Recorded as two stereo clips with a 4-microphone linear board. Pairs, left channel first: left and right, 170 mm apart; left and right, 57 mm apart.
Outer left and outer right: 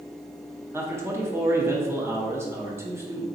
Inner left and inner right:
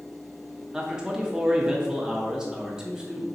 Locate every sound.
0.7 s a man speaking: 15° right (ahead or behind), 0.7 m